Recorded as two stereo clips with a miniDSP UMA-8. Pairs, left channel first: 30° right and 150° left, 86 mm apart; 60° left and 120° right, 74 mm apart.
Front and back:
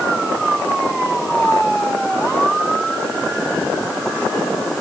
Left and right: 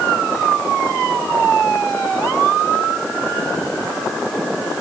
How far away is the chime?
I don't hear a chime.